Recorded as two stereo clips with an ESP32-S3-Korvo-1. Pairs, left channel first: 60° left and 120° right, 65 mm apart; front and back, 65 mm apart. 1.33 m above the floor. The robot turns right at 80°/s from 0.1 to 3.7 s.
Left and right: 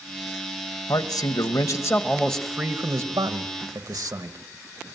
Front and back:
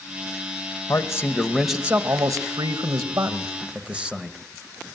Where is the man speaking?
30° left, 1.9 m; by 4.4 s 105° right, 1.9 m.